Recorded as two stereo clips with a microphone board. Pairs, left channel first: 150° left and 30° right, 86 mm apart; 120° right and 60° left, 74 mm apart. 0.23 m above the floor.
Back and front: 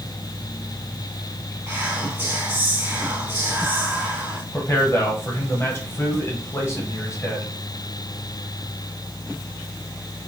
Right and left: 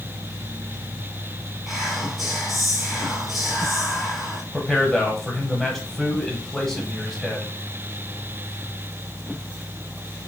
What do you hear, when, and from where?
1.7 s whispering: 25° right, 1.1 m
4.5 s a man speaking: 160° left, 1.1 m